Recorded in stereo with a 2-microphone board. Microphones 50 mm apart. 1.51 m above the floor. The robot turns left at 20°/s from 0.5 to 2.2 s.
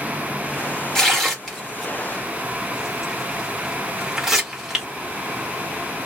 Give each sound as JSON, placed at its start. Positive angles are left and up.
{"t": 0.9, "sound": "tearing paper", "side_deg": 10, "distance_m": 1.3}